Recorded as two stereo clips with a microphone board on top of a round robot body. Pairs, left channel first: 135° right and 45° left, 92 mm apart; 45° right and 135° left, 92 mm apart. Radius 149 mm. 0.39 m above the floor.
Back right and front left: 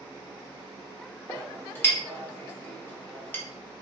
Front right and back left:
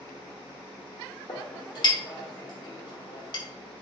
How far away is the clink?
About 1.0 m.